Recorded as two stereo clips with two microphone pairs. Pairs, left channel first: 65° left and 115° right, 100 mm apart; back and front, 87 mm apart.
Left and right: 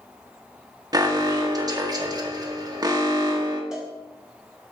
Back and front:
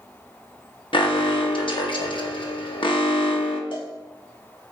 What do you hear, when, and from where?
0.9 s an alarm: 165° right, 0.8 m
3.7 s a cowbell: 160° left, 1.2 m